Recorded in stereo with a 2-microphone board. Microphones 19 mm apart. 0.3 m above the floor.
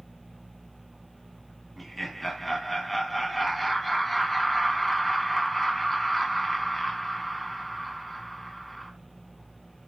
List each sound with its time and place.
1.8 s laughter: 10° left (ahead or behind), 3 m